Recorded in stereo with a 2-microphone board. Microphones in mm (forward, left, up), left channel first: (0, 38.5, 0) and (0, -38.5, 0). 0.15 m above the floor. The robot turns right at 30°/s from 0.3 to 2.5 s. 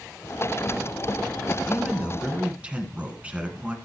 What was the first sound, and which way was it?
A man speaking, 5° right (ahead or behind).